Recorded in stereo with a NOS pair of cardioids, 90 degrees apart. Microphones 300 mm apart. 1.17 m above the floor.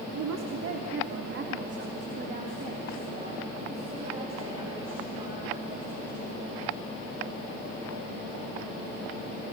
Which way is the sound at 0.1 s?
65° right.